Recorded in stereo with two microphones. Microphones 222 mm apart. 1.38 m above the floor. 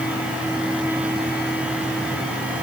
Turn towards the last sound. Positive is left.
No sound to turn to.